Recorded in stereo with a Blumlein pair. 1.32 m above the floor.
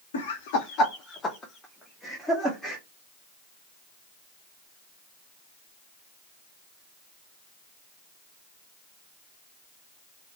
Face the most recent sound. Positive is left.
turn(degrees=-10)